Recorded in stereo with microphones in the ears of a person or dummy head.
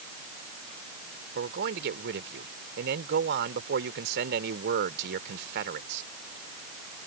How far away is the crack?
No crack in this recording.